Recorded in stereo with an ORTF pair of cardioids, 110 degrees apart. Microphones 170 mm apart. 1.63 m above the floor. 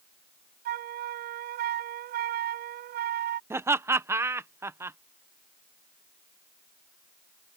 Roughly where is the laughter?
Ahead.